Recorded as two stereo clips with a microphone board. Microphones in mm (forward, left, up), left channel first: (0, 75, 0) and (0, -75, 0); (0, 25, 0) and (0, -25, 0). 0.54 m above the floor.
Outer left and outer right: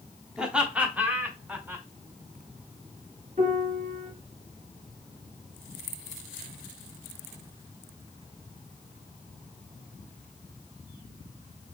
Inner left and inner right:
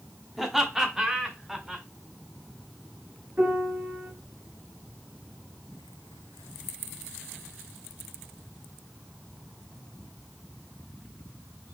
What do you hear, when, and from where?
0.4 s laughter: 5° right (ahead or behind), 1.2 m; by 1.9 s 15° right (ahead or behind), 1.9 m
3.4 s a piano: 55° right (ahead or behind), 2.5 m